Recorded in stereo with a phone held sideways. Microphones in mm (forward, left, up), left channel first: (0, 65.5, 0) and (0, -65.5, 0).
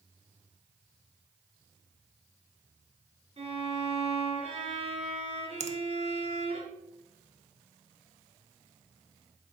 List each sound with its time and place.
3.4 s a violin: 55° right (ahead or behind), 3.5 m
5.6 s a finger snap: 60° right (ahead or behind), 0.8 m